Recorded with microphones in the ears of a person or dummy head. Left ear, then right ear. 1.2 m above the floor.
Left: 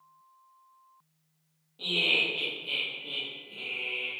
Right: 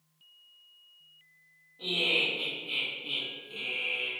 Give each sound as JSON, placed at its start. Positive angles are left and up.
{"t": 1.8, "sound": "laughter", "side_deg": 75, "distance_m": 1.4}